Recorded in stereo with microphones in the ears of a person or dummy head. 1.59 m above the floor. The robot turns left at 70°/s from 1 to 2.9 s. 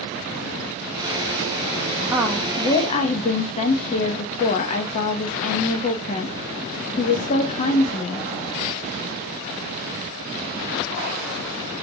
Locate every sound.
2.1 s a woman speaking: 160° right, 0.6 m; by 8.3 s 145° left, 0.6 m